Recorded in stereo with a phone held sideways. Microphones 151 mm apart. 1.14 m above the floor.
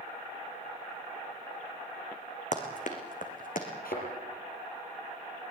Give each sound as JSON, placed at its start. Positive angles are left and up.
{"t": 2.5, "sound": "running footsteps", "side_deg": 55, "distance_m": 3.5}
{"t": 3.9, "sound": "a thud", "side_deg": 75, "distance_m": 6.0}